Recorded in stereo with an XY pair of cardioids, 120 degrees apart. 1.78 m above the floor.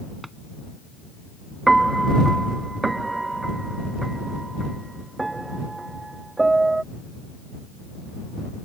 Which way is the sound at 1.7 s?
15° right.